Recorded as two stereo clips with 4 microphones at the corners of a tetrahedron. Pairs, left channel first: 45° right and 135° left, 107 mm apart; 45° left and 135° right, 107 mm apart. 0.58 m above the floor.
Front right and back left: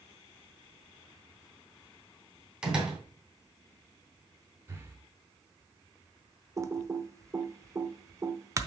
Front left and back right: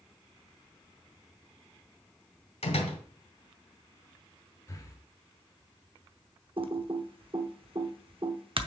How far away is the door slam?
About 2 m.